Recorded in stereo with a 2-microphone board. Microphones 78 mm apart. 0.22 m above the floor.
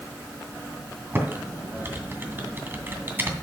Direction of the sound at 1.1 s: 25° right (ahead or behind).